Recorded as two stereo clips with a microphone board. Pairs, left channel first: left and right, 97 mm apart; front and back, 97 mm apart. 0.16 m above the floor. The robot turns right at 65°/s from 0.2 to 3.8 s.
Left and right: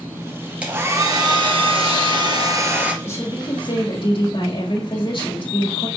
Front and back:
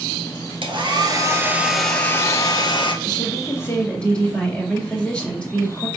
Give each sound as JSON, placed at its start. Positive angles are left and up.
{"t": 0.6, "sound": "a hair dryer", "azimuth_deg": -165, "distance_m": 2.0}
{"t": 3.0, "sound": "a woman speaking", "azimuth_deg": 30, "distance_m": 3.5}